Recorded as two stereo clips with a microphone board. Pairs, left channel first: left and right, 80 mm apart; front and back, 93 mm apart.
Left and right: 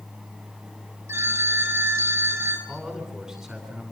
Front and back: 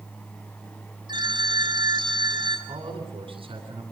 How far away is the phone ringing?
About 5 m.